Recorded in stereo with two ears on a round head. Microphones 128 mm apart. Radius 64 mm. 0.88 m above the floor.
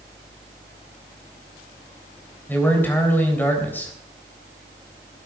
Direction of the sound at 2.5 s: 15° left (ahead or behind).